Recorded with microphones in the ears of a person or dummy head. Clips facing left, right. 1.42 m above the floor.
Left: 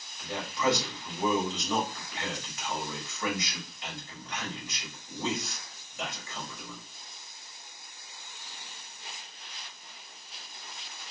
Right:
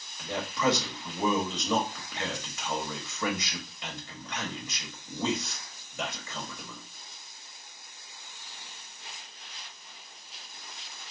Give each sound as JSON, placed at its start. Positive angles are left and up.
{"t": 0.2, "sound": "a man speaking", "side_deg": -80, "distance_m": 1.5}